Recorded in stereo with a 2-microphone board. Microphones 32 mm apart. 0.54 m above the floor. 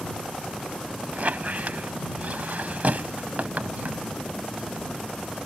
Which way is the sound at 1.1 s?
55° right (ahead or behind).